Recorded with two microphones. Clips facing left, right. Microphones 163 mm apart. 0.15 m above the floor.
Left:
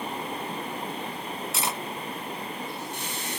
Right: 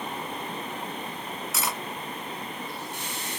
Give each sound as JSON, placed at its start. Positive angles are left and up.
{"t": 1.5, "sound": "cutlery clinking", "side_deg": 25, "distance_m": 0.7}